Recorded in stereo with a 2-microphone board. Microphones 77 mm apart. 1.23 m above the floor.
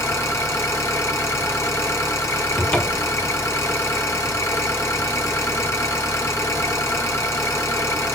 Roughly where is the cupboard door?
Centre.